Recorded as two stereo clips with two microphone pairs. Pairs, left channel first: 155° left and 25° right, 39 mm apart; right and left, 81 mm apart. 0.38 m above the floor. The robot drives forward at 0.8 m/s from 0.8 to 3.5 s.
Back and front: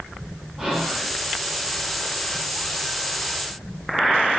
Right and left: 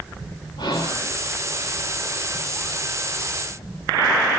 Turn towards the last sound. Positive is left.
turn(degrees=-105)